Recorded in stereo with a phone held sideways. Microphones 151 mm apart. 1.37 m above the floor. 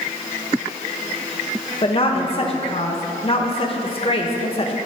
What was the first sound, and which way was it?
A woman speaking, 40° left (ahead or behind).